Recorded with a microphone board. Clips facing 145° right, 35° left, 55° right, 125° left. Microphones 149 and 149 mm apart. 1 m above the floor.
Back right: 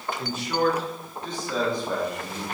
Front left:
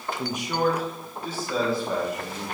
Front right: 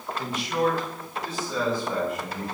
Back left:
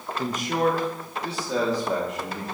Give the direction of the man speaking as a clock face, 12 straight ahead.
9 o'clock.